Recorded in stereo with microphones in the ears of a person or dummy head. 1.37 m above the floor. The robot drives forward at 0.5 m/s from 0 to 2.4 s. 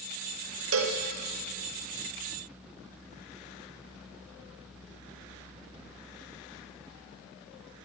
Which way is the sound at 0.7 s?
75° right (ahead or behind).